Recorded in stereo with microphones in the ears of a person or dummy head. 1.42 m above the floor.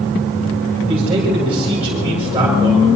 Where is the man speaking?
10° right (ahead or behind), 7.5 m.